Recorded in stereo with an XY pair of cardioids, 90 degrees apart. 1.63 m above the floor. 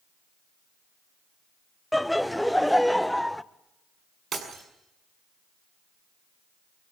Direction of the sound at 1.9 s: 5° left.